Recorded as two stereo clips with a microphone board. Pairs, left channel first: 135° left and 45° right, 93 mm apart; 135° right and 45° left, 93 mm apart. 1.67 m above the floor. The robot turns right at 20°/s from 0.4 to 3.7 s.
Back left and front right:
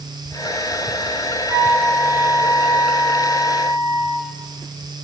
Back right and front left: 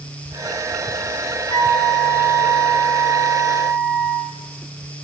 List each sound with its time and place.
1.5 s a flute: 110° right, 3 m; by 4.4 s 65° right, 3 m